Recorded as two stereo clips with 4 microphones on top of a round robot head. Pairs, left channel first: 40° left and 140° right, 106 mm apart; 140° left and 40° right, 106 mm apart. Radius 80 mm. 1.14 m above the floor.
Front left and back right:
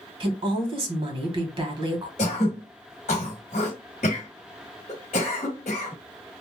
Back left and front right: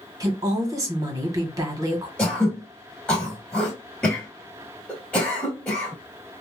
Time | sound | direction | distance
0.2 | a woman speaking | 100° right | 1.3 m
2.2 | throat clearing | 60° left | 1.1 m